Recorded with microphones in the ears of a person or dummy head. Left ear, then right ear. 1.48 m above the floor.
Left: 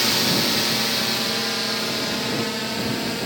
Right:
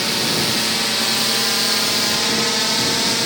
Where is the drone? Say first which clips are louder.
Right 1 dB; 5° left (ahead or behind); by 3.3 s 35° right (ahead or behind).